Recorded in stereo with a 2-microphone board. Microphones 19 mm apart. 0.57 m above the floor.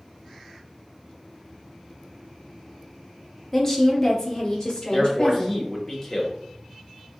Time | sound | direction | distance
3.5 | a woman speaking | 15° left (ahead or behind) | 0.8 m
4.9 | a man speaking | 15° left (ahead or behind) | 1.1 m